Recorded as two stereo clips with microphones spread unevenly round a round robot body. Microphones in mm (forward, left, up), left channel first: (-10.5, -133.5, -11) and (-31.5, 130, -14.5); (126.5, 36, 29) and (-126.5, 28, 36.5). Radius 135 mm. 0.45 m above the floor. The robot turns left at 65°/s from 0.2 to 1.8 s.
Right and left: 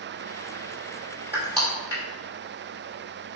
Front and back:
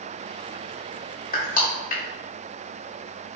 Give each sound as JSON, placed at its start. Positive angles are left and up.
{"t": 1.3, "sound": "crushing", "azimuth_deg": 15, "distance_m": 1.6}